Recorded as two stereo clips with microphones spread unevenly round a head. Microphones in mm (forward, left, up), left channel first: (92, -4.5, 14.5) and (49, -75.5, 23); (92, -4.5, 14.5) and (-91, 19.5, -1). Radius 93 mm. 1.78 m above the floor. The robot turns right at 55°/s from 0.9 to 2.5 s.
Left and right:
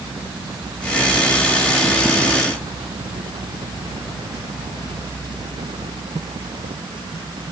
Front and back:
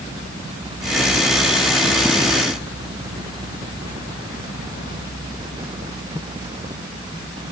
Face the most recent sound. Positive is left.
No sound to turn to.